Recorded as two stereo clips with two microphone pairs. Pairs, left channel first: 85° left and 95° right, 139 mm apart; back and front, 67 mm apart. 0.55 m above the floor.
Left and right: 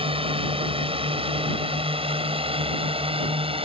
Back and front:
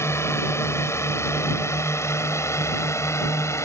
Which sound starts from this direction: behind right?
A drone, at 0.0 s.